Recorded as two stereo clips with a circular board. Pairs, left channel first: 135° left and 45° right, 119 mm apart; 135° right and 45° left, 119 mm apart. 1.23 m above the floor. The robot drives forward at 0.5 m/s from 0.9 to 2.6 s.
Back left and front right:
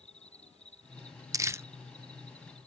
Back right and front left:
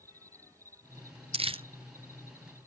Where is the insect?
110° left; by 2.7 s 115° left.